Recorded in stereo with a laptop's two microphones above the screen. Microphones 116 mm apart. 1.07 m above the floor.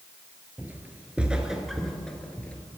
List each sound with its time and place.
0.6 s footsteps: 15° right (ahead or behind), 1.4 m; by 2.5 s 10° left (ahead or behind), 1.3 m